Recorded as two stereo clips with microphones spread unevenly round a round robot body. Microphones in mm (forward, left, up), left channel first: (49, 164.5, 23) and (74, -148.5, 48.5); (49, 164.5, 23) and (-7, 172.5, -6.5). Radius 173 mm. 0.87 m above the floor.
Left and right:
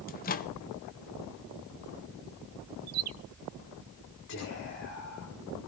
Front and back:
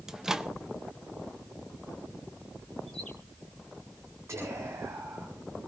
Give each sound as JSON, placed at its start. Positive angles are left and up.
{"t": 0.1, "sound": "a microwave", "azimuth_deg": 135, "distance_m": 0.7}
{"t": 2.9, "sound": "a bird", "azimuth_deg": -110, "distance_m": 0.6}
{"t": 4.3, "sound": "whispering", "azimuth_deg": 150, "distance_m": 3.5}